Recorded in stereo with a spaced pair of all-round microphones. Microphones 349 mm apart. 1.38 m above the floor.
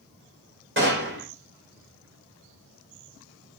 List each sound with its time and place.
0.8 s a gunshot: 35° right (ahead or behind), 3.5 m